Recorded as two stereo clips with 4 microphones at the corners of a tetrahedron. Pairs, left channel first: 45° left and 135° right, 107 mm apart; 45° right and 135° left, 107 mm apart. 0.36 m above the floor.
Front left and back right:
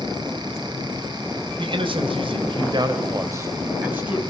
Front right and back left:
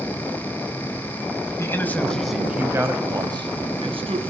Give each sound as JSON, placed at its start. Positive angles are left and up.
{"t": 1.6, "sound": "a man speaking", "azimuth_deg": -105, "distance_m": 2.0}